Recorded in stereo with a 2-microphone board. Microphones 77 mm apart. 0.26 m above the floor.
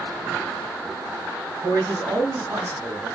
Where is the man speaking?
40° right (ahead or behind), 3 m; by 3.1 s 25° right (ahead or behind), 2.5 m.